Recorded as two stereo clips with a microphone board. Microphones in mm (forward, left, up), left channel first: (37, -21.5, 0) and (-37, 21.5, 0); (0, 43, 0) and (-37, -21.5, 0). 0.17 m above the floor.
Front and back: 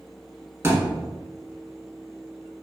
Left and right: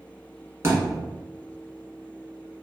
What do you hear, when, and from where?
0.6 s a thud: 160° right, 0.9 m